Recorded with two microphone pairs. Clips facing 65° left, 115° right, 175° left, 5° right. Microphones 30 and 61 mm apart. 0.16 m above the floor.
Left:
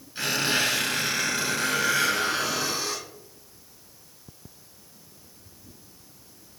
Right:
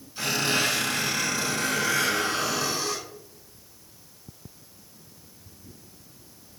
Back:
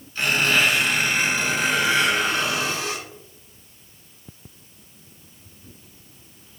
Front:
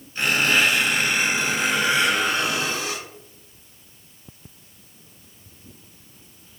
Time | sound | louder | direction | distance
0.1 | a squeak | even, even | 65° left | 1.7 m